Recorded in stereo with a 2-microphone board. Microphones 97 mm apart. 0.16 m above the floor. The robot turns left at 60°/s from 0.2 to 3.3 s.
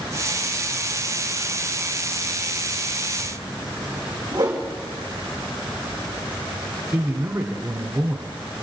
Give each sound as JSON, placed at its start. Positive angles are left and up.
{"t": 4.3, "sound": "a whoosh", "side_deg": -45, "distance_m": 4.0}
{"t": 6.9, "sound": "a man speaking", "side_deg": -40, "distance_m": 1.3}